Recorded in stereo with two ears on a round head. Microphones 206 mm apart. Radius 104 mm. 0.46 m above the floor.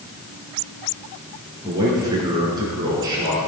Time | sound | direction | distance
1.6 | a man speaking | 15° right (ahead or behind) | 5.5 m